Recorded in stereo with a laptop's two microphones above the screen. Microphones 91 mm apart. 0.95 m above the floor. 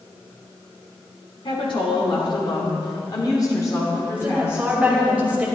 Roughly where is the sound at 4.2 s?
Centre.